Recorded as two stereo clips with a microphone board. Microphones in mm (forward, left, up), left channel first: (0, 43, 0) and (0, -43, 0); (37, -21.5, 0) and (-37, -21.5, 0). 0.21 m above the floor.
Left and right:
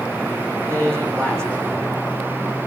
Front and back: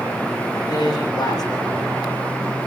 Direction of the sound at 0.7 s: 30° right.